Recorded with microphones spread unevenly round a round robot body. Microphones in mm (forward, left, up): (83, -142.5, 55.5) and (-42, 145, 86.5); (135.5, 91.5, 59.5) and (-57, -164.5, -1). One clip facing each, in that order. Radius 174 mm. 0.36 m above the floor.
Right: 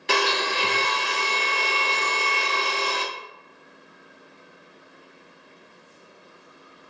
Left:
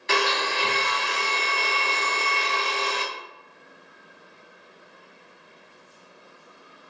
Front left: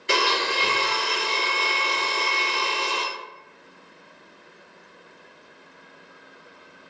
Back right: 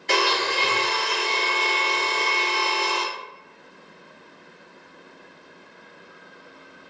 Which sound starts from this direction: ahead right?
A blender, at 0.1 s.